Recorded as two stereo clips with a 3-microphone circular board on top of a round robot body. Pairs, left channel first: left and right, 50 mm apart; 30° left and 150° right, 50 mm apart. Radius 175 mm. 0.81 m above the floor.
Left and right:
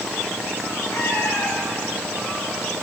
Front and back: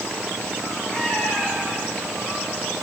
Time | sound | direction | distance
0.9 | a cat meowing | 90° left | 3.5 m